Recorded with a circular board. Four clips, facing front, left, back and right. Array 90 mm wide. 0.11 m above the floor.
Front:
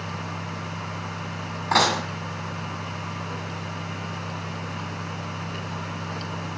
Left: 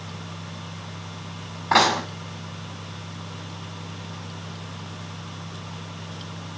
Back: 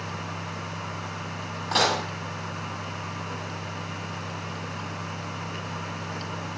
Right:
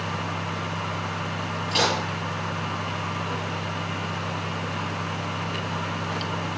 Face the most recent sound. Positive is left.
turn(degrees=75)